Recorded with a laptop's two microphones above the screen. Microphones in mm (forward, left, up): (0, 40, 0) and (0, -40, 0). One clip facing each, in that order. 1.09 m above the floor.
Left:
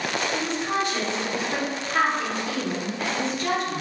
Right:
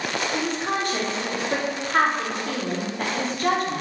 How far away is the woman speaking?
About 0.5 m.